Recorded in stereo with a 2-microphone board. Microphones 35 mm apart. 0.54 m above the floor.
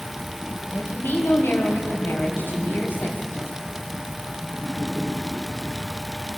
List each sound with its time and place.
0.7 s a woman speaking: 75° left (ahead or behind), 3 m